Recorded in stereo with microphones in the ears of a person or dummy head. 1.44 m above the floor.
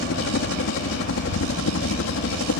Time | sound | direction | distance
0.0 | a helicopter | 65° left (ahead or behind) | ?